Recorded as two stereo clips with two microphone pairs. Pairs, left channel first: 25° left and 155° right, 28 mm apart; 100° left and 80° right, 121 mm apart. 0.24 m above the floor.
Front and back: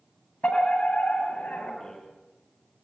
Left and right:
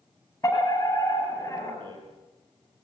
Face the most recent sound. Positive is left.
turn(degrees=-30)